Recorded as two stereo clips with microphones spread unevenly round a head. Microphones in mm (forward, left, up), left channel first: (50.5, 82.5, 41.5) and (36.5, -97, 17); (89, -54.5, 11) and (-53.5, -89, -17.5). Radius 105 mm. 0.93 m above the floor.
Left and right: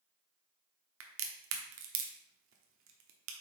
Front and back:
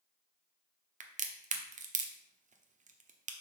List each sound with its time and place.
1.0 s a crack: 125° right, 0.9 m